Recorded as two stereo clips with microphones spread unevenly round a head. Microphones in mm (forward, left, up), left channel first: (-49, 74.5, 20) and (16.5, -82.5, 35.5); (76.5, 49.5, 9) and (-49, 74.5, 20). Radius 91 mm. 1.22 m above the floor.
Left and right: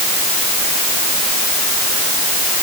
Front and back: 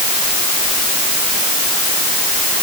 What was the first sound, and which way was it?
Only background noise.